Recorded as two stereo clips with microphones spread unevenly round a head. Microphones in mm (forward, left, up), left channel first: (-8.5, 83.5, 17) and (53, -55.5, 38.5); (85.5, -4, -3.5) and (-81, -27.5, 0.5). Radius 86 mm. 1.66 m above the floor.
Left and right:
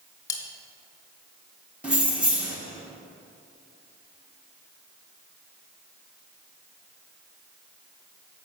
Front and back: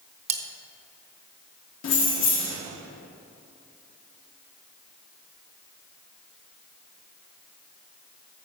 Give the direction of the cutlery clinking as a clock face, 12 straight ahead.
6 o'clock.